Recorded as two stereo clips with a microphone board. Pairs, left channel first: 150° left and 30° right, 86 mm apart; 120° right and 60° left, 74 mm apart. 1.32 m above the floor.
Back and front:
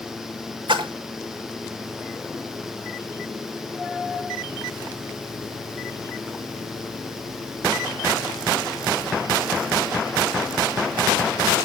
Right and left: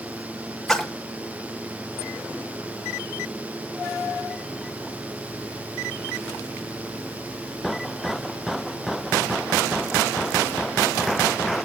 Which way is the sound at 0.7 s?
35° right.